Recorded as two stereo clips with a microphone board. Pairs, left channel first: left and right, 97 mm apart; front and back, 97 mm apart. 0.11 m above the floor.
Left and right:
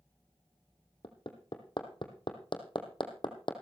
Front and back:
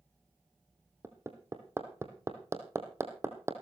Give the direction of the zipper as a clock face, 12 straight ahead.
No zipper in this recording.